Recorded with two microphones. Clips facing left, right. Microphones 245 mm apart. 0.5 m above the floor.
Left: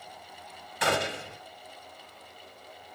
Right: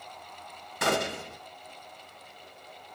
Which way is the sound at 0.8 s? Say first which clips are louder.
Right 1 dB; 45° right (ahead or behind).